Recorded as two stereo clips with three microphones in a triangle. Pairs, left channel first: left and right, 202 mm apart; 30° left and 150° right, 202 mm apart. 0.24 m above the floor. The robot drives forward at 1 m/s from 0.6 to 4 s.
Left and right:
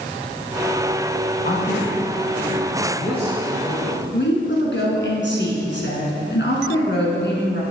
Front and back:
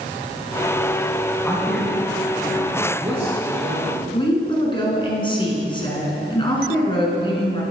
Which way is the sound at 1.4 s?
95° left.